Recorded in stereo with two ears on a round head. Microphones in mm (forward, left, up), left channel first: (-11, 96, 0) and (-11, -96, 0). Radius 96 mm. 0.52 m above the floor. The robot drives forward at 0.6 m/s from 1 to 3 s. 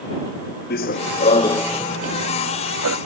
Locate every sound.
0.7 s running footsteps: 45° left (ahead or behind); by 3.0 s 75° right (ahead or behind)